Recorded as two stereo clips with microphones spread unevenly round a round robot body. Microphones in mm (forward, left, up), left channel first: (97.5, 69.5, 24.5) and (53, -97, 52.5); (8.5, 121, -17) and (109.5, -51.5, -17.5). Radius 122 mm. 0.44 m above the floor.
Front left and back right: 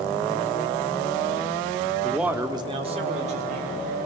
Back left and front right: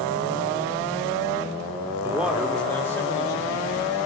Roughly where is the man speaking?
Ahead.